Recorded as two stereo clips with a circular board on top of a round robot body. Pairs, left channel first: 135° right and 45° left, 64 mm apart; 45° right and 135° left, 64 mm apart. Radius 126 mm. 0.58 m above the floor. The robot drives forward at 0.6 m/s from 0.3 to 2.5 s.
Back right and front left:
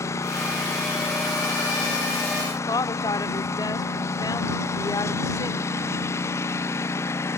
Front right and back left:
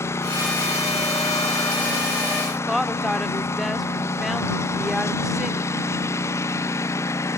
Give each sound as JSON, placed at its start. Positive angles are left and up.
{"t": 0.0, "sound": "a lawn mower", "azimuth_deg": -90}
{"t": 2.7, "sound": "a woman speaking", "azimuth_deg": -135}